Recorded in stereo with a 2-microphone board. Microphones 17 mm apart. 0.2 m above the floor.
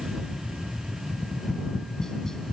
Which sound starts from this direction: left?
Tapping, at 1.1 s.